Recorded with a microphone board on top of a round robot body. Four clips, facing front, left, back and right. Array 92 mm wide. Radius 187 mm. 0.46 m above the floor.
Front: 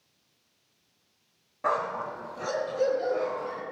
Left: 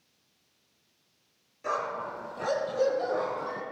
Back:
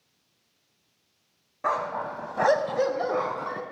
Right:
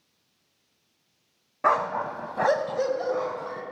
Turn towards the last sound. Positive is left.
turn(degrees=175)